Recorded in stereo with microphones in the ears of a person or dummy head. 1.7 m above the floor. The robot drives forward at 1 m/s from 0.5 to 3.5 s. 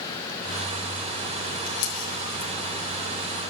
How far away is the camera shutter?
About 8.5 m.